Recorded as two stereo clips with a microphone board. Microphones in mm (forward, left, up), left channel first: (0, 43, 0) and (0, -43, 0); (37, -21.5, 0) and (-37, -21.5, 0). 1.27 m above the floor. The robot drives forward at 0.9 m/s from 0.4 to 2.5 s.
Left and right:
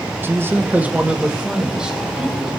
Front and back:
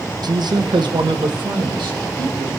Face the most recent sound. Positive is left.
turn(degrees=-175)